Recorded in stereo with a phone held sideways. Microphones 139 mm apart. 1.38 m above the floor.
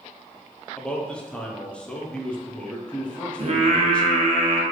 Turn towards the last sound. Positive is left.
turn(degrees=-45)  # may be behind; listen again after turning